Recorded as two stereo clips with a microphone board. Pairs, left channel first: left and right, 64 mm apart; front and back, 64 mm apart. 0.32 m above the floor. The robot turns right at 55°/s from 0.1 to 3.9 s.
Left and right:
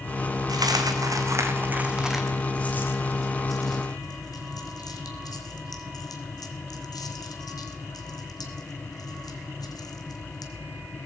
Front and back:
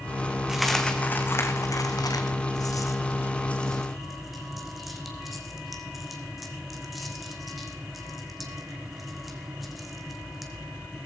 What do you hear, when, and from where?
0.5 s a dropped coin: 95° right, 1.5 m; by 10.5 s 90° left, 1.5 m